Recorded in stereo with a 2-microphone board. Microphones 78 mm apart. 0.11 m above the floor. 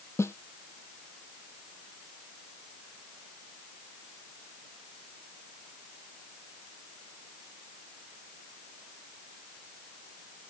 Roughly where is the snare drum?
Left.